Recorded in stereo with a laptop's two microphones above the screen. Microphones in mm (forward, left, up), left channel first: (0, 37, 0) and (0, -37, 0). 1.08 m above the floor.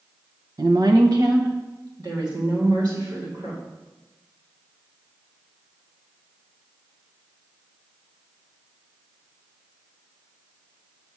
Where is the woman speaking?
55° right (ahead or behind), 0.8 m; by 3.6 s 60° right (ahead or behind), 3.5 m.